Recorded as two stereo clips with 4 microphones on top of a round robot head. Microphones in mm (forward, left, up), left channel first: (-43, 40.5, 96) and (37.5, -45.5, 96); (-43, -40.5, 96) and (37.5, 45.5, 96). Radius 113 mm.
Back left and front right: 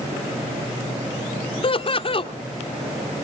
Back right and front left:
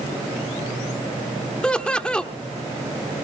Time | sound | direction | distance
1.6 | laughter | 145° left | 1.9 m